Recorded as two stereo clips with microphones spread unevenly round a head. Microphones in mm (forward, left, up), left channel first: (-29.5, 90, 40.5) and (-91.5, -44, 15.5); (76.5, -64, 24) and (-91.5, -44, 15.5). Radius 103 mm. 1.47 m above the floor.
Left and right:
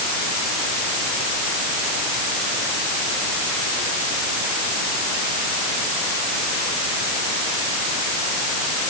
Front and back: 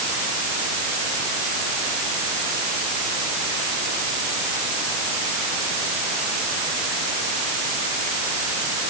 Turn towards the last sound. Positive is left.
No sound to turn to.